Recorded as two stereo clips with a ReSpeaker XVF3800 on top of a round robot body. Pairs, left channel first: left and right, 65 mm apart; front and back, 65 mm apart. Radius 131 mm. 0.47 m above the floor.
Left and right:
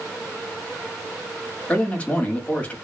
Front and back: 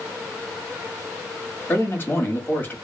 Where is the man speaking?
35° left, 1.4 m.